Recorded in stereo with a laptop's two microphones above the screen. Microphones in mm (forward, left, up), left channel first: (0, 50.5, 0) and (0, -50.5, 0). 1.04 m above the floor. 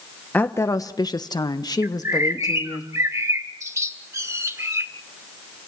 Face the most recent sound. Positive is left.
turn(degrees=-30)  # may be behind; listen again after turning